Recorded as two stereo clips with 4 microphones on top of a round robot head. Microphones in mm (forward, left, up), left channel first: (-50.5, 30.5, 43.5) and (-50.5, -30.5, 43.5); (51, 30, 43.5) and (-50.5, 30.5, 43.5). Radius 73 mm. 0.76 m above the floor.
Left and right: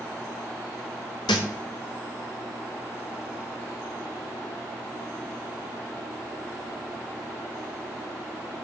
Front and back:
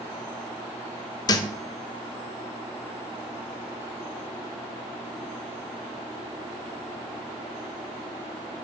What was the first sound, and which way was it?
A thud, 50° left.